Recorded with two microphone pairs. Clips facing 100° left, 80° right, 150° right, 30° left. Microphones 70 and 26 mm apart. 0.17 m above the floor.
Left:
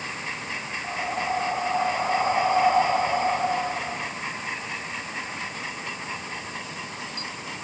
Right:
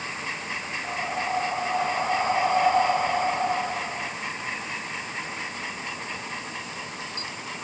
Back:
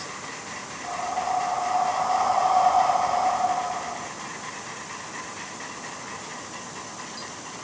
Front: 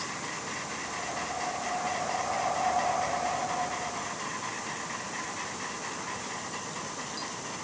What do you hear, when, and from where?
0.8 s breathing: 175° left, 6 m